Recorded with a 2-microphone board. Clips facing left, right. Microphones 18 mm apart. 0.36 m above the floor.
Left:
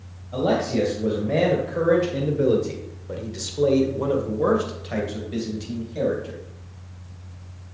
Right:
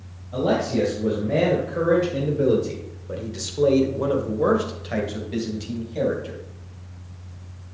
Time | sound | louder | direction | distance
0.3 | a man speaking | even | 20° left (ahead or behind) | 2.5 m